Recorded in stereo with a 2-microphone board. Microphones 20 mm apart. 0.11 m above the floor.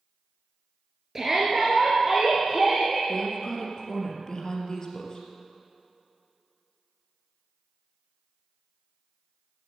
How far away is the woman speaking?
About 2.5 m.